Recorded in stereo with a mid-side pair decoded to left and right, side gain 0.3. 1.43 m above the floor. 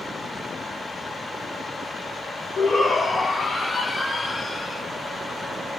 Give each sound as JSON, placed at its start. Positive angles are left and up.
{"t": 2.6, "sound": "a shout", "azimuth_deg": 60, "distance_m": 1.1}